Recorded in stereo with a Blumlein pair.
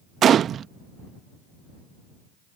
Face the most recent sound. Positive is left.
turn(degrees=-25)